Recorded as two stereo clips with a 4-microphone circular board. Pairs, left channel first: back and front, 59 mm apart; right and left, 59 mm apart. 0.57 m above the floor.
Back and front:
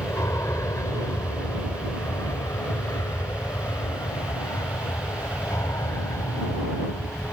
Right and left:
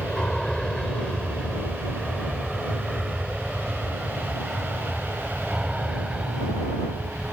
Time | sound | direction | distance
0.0 | an aircraft | 165° right | ?